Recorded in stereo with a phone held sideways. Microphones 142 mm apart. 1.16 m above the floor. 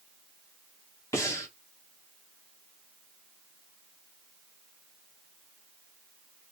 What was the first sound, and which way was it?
Breathing, 20° left (ahead or behind).